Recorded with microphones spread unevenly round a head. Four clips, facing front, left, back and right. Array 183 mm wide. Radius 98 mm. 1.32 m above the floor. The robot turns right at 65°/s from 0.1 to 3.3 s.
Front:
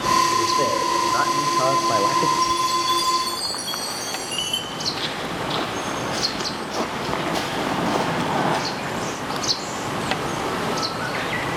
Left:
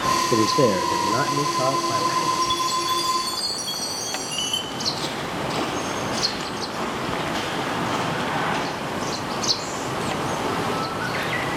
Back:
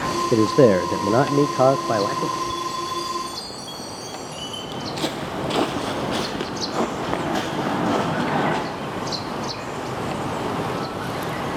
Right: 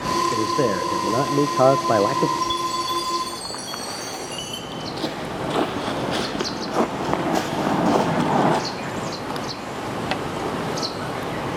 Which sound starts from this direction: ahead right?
A chime, at 2.4 s.